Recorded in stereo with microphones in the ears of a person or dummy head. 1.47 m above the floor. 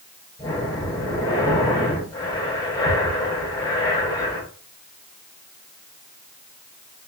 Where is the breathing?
25° left (ahead or behind), 5 m.